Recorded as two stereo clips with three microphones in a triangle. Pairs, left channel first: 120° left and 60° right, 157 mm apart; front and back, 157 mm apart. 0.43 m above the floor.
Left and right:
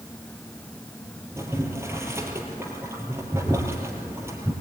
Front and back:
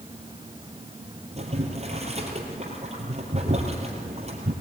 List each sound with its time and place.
1.4 s boiling: 135° right, 3.5 m